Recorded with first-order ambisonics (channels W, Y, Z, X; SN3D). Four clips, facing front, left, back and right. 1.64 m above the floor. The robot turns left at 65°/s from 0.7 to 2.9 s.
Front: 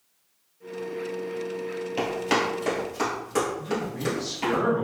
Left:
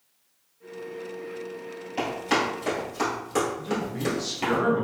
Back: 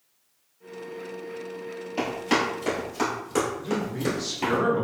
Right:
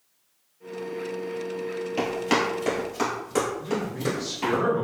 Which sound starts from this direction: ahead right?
Running footsteps, at 2.0 s.